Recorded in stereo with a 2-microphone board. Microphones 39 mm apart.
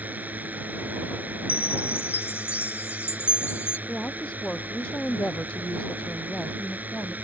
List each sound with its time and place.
0.0 s a drone: 45° right (ahead or behind)
1.5 s a chime: 70° left (ahead or behind)
3.9 s a woman speaking: 25° left (ahead or behind)